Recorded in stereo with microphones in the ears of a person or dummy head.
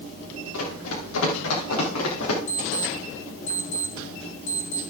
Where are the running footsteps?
80° left, 7.5 m.